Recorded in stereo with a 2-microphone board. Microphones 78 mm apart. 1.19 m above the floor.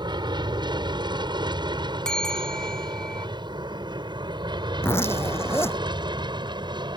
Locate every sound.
0.0 s an aircraft: 75° right (ahead or behind)
2.0 s a bell: 10° left (ahead or behind)
4.8 s a zipper: 35° left (ahead or behind)